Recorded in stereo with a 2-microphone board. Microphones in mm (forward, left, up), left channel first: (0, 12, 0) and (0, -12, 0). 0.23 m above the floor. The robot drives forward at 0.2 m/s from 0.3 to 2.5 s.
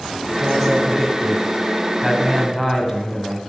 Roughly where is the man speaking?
Centre.